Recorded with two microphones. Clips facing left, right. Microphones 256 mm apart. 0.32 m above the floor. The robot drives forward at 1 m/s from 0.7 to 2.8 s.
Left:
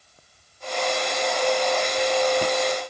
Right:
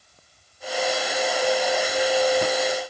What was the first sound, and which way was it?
Only background noise.